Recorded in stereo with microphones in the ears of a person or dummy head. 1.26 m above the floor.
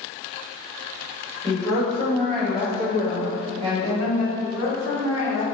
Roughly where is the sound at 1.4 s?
Centre.